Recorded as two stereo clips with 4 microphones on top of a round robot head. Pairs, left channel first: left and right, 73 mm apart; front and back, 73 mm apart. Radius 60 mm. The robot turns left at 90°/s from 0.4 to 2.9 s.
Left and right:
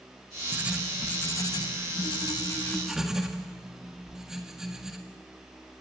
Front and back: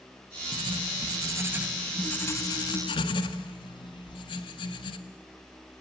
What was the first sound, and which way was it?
Writing, 150° right.